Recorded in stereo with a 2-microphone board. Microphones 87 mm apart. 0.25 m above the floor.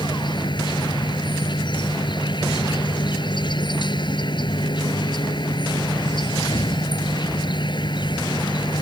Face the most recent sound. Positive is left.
turn(degrees=60)  # may be behind; listen again after turning